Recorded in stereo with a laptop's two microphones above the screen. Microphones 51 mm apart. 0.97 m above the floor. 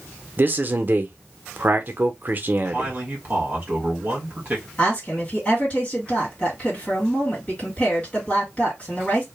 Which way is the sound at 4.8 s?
25° left (ahead or behind).